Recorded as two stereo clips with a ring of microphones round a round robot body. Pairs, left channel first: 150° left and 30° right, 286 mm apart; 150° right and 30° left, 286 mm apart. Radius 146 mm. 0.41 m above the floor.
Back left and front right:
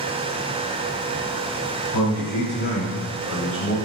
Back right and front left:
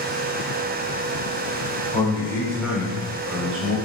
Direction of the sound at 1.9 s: 145° left.